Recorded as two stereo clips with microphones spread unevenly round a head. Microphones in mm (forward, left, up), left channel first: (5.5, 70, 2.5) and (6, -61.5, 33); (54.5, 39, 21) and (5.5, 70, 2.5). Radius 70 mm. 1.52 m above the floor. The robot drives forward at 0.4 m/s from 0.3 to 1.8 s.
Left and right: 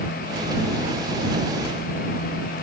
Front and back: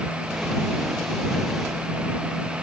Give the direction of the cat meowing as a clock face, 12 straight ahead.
No cat meowing in this recording.